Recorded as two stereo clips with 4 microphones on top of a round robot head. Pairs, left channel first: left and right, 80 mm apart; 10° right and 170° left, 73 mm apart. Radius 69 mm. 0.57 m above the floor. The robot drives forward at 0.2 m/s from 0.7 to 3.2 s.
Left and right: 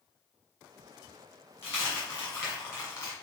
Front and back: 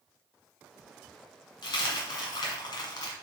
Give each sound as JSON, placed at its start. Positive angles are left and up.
{"t": 1.6, "sound": "a dropped coin", "azimuth_deg": 20, "distance_m": 1.7}